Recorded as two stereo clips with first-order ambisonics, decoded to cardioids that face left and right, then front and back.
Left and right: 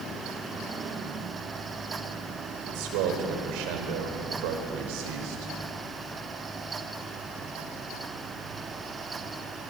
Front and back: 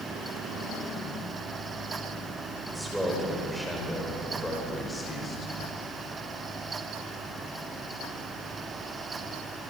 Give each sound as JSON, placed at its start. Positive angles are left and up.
{"t": 2.7, "sound": "a man speaking", "azimuth_deg": -95, "distance_m": 5.0}